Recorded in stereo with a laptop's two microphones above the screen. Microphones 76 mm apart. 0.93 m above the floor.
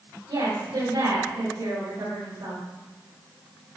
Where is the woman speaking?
75° right (ahead or behind), 3 m; by 2.6 s 80° right, 4 m.